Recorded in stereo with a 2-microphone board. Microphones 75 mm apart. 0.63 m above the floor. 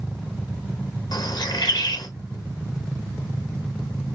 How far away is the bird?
About 0.8 m.